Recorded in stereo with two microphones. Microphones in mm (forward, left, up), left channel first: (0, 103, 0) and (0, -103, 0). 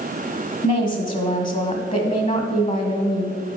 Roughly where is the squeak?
I don't hear a squeak.